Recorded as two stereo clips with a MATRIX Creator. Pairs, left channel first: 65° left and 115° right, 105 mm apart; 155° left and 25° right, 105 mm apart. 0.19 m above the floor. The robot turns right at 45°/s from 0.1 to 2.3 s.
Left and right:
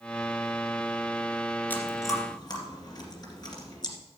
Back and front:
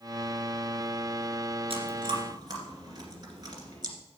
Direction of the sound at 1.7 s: 5° right.